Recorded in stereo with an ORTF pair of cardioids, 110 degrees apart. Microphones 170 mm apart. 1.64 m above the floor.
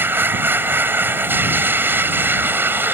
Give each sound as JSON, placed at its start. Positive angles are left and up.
{"t": 0.0, "sound": "a machine running", "azimuth_deg": -10}